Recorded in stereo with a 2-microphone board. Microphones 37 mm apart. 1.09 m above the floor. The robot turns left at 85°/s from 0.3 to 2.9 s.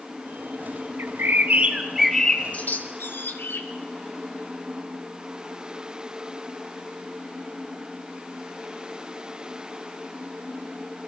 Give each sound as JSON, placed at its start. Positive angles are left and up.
{"t": 1.0, "sound": "a bird", "side_deg": -85, "distance_m": 2.0}